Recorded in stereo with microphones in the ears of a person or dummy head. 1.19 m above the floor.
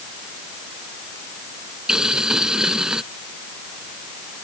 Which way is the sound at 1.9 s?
5° right (ahead or behind).